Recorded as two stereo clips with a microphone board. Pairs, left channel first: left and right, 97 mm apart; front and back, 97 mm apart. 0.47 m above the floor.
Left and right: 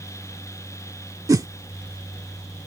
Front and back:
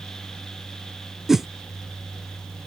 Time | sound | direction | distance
1.3 | a whoosh | 95° right | ?